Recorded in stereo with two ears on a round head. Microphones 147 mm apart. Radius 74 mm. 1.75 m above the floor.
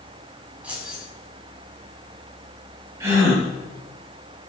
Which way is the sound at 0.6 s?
10° right (ahead or behind).